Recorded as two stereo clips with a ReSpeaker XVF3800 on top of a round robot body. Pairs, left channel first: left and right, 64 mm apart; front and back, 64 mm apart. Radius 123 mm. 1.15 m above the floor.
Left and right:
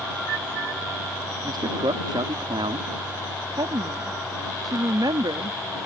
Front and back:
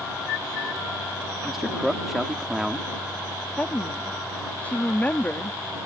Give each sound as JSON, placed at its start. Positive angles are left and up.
{"t": 1.4, "sound": "a man speaking", "azimuth_deg": -95}
{"t": 3.6, "sound": "a woman speaking", "azimuth_deg": -70}